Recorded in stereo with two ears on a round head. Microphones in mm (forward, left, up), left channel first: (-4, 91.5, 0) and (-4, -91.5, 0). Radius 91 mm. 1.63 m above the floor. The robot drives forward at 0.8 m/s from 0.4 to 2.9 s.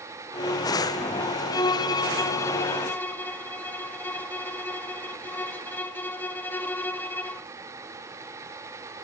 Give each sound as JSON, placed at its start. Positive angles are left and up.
{"t": 1.5, "sound": "a violin", "side_deg": 20, "distance_m": 0.6}